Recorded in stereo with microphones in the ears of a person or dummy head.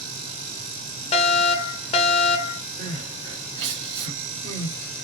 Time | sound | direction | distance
1.1 | a fire alarm | 35° left (ahead or behind) | 0.8 m
2.8 | crying | 40° right (ahead or behind) | 3 m